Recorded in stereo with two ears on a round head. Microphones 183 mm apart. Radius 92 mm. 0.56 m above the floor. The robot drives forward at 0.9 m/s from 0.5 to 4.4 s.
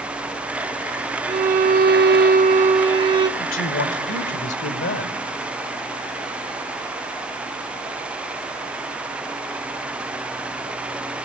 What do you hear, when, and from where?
1.3 s a violin: 30° right (ahead or behind), 0.9 m; by 3.3 s 20° right (ahead or behind), 1.3 m
3.4 s a man speaking: 65° left (ahead or behind), 2.0 m; by 5.2 s 60° left (ahead or behind), 2 m